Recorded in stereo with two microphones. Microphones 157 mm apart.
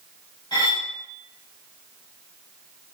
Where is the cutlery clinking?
25° left (ahead or behind), 0.9 m.